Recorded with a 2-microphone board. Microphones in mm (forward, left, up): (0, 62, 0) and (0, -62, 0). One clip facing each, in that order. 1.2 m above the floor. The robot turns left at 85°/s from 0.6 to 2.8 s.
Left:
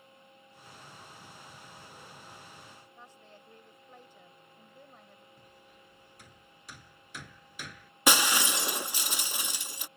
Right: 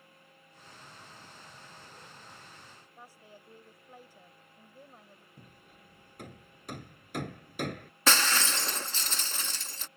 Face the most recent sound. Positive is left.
turn(degrees=15)  # may be behind; listen again after turning